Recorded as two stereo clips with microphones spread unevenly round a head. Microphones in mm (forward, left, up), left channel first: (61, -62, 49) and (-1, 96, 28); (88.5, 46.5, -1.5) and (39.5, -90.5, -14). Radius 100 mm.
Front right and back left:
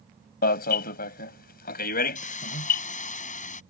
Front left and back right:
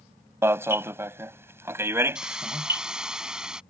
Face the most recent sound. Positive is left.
turn(degrees=-25)